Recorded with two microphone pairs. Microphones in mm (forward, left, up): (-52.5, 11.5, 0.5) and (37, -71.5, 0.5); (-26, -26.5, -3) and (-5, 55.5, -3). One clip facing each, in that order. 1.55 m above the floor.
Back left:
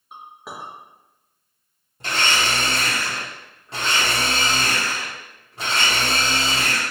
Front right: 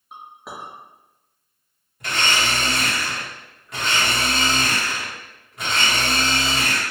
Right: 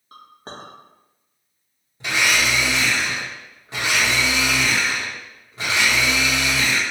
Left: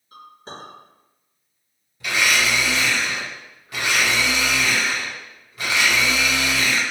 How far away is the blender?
About 1.4 m.